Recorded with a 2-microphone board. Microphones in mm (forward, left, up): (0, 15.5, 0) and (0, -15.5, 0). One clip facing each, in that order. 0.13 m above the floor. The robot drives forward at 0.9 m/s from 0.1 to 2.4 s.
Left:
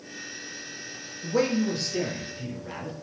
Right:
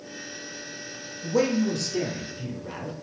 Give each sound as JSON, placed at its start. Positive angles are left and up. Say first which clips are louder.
{"t": 1.2, "sound": "a man speaking", "louder": "right 1 dB", "side_deg": 25, "distance_m": 2.0}